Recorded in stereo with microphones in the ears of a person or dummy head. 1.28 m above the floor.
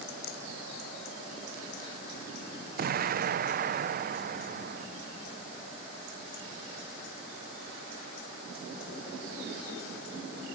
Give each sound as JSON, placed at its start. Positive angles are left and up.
{"t": 0.2, "sound": "a rattle", "side_deg": 55}
{"t": 2.8, "sound": "an explosion", "side_deg": -35}